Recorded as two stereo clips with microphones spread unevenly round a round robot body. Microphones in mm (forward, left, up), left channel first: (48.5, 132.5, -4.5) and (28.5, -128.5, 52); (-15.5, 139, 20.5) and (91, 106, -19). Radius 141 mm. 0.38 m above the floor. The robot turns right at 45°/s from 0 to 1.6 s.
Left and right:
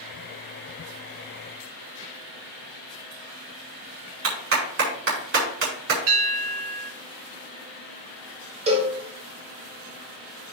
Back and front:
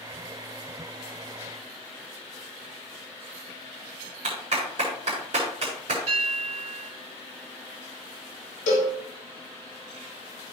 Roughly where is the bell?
Ahead right.